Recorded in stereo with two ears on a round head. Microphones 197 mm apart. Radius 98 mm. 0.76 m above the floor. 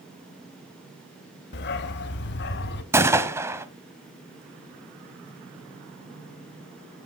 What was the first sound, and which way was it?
A dog barking, 50° left (ahead or behind).